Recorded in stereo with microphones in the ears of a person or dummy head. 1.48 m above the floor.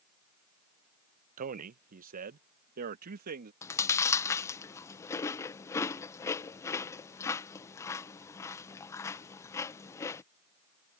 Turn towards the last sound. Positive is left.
turn(degrees=15)  # may be behind; listen again after turning